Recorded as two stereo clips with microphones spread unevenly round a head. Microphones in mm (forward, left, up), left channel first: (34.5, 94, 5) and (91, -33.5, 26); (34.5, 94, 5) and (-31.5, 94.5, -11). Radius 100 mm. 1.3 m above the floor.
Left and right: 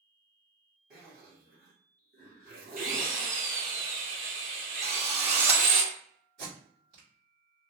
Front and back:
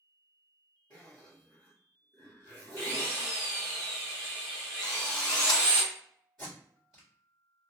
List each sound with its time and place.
0.9 s a zipper: 115° right, 0.9 m
2.8 s a drill: 115° right, 0.7 m
4.8 s a drill: 20° right, 0.7 m
6.4 s tape being pulled: 95° right, 1.8 m